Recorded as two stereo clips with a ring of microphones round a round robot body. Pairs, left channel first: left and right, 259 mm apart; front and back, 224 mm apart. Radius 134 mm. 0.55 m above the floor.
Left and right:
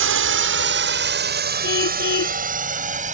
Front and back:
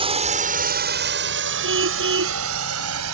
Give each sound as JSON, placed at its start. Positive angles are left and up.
{"t": 0.0, "sound": "a drone", "azimuth_deg": -115}
{"t": 1.6, "sound": "a car horn", "azimuth_deg": 145}